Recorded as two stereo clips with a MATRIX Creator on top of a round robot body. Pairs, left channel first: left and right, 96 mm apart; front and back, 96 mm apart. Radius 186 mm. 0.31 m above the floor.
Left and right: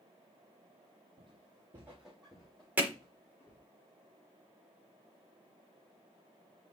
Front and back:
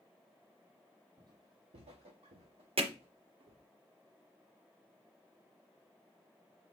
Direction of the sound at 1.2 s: 120° right.